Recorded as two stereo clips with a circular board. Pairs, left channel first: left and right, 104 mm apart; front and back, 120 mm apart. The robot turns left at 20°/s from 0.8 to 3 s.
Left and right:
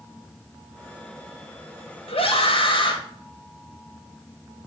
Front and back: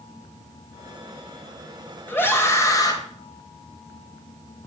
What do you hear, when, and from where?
2.1 s a scream: 75° left, 3 m; by 3.0 s 55° left, 3 m